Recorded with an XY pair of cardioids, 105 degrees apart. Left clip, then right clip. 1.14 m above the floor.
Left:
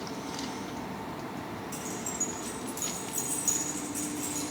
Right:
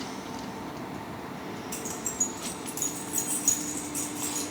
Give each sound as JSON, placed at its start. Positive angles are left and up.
{"t": 1.7, "sound": "keys jangling", "azimuth_deg": -40, "distance_m": 4.5}